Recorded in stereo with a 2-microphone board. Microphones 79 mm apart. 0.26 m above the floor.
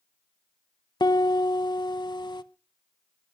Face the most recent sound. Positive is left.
turn(degrees=70)  # may be behind; listen again after turning